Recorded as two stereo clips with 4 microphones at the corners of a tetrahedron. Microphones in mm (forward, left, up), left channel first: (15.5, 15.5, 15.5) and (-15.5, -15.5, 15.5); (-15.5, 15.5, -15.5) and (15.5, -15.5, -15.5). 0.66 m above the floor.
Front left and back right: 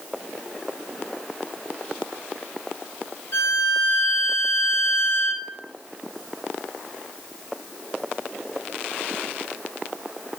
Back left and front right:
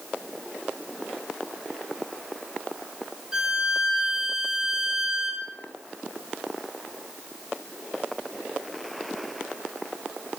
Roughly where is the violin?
Ahead left.